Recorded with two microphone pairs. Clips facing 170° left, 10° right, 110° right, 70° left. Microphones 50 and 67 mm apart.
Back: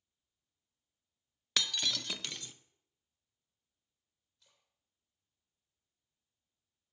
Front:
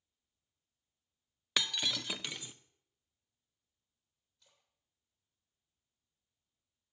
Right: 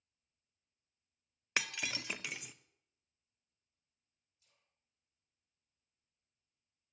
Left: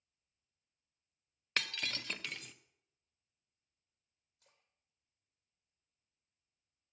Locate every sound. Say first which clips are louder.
1.6 s breaking glass: even, right 1 dB; 55° right, 0.6 m
4.4 s a splash: front 1 dB, left 6 dB; 80° left, 3 m